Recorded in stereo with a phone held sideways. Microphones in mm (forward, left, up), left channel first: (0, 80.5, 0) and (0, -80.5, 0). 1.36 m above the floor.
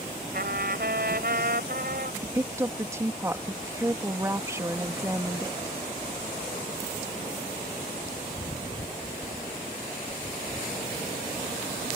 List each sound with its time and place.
0.3 s a trumpet: 70° right (ahead or behind)
2.2 s a woman speaking: 15° right (ahead or behind)